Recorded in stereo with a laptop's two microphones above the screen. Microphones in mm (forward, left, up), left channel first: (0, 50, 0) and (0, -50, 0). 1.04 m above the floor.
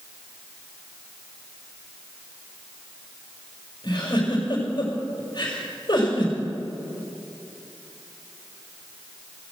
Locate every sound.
3.8 s a giggle: 45° left (ahead or behind), 4.5 m